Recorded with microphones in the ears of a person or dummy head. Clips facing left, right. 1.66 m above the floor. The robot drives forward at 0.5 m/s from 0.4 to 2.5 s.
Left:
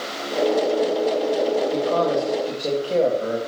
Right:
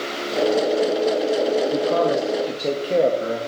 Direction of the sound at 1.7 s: 20° right (ahead or behind).